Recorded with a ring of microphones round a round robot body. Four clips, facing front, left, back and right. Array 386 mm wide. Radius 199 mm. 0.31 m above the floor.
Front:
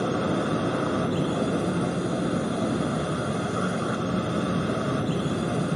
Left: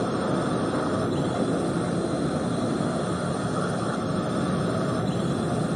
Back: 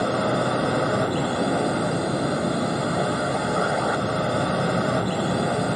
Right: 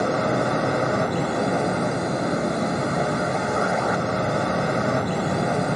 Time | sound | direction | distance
0.0 | a drone | 125° right | ?